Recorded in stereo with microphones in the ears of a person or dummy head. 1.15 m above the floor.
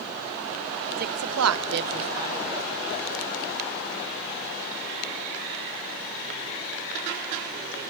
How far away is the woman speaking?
About 1.2 m.